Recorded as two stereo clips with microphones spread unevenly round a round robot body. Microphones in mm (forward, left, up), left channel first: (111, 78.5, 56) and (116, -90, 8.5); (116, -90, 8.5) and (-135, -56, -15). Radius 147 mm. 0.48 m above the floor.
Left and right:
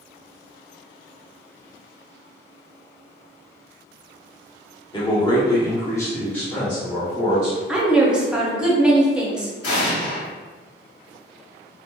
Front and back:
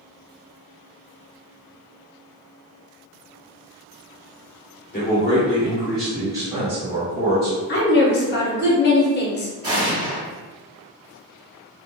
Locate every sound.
4.9 s a man speaking: 20° left, 1.0 m; by 7.6 s 160° right, 1.3 m
7.7 s a woman speaking: 30° right, 0.8 m
9.6 s an explosion: 100° left, 0.9 m